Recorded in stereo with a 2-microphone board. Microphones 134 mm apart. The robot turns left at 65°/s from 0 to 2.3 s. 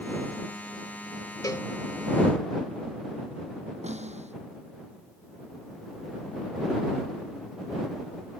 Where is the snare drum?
55° right (ahead or behind).